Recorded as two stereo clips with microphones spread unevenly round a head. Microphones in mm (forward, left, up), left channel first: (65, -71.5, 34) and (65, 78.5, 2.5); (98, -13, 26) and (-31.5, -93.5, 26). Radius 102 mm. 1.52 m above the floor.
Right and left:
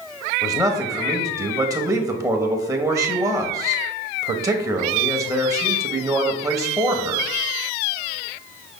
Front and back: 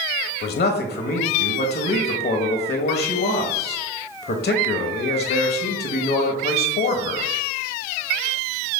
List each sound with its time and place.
0.4 s a man speaking: 25° left, 1.2 m